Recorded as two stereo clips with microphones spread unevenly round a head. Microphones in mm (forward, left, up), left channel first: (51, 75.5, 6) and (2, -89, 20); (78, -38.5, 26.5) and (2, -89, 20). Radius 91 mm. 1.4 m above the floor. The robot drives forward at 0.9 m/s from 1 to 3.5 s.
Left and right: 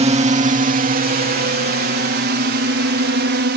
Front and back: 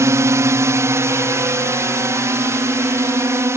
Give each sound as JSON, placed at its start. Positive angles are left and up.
{"t": 0.0, "sound": "a drone", "azimuth_deg": -135}